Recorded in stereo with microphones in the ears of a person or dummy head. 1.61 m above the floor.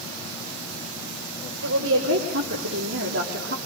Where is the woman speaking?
80° right, 5 m; by 3.6 s 65° right (ahead or behind), 3.5 m.